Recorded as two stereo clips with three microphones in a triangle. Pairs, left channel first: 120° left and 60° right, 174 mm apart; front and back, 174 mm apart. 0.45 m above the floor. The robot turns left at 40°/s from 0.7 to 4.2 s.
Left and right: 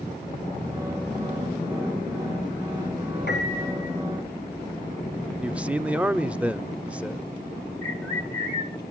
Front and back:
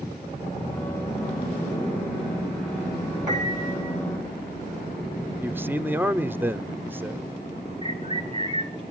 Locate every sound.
3.3 s a piano: 115° left, 8 m; by 4.0 s 85° left, 8 m
5.4 s a man speaking: 130° right, 0.7 m
7.8 s a bird: 55° left, 5 m